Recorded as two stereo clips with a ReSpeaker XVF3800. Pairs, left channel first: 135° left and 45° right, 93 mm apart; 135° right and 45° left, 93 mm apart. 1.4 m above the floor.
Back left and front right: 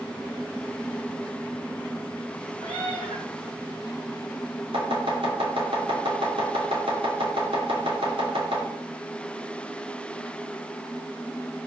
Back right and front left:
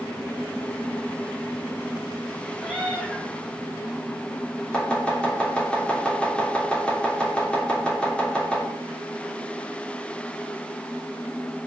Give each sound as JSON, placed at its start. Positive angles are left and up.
{"t": 2.6, "sound": "a cat meowing", "azimuth_deg": -35, "distance_m": 5.0}
{"t": 4.7, "sound": "chopping", "azimuth_deg": -55, "distance_m": 3.0}